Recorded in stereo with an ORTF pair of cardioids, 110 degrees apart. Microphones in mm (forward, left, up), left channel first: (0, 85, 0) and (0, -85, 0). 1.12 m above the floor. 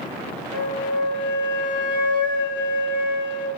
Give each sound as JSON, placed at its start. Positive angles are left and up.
{"t": 0.5, "sound": "a flute", "azimuth_deg": 25, "distance_m": 3.0}